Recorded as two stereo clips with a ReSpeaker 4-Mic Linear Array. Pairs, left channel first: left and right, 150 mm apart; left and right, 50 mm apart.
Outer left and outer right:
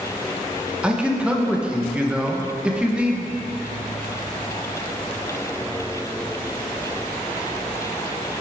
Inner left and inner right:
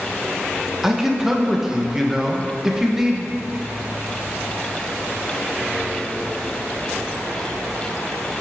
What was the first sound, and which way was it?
A man speaking, 10° right (ahead or behind).